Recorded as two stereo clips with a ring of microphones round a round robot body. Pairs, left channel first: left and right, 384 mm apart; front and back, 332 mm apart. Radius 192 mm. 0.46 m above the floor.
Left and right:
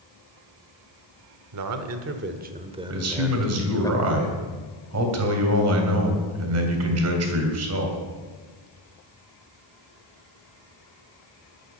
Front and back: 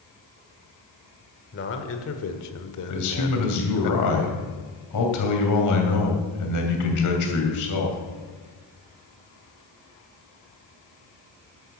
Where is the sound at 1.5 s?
55° right, 1.3 m; by 3.9 s 10° left, 1.5 m.